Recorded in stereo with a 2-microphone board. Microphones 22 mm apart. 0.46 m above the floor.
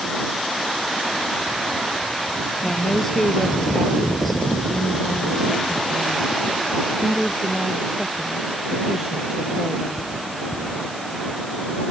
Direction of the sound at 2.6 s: 15° left (ahead or behind).